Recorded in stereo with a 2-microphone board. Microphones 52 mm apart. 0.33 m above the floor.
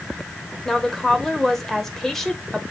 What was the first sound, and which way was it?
A woman speaking, 5° left (ahead or behind).